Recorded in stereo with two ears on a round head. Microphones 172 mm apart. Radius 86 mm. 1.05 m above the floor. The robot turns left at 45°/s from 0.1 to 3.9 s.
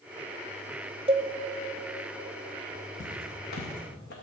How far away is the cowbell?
About 0.8 m.